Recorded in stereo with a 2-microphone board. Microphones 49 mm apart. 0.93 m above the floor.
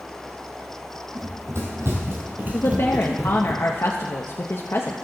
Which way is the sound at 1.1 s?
70° right (ahead or behind).